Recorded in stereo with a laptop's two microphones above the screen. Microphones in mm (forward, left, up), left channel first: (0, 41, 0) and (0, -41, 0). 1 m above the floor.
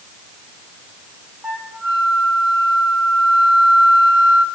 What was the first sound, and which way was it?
A flute, 15° right (ahead or behind).